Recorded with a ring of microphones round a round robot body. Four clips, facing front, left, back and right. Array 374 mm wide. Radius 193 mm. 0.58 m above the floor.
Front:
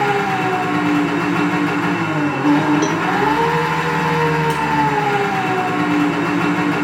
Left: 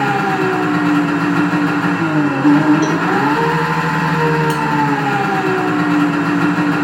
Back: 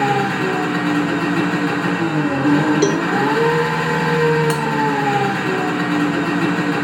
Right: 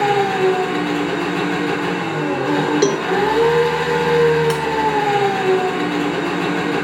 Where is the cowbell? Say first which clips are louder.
Left 1 dB, back 2 dB; 115° right, 0.8 m.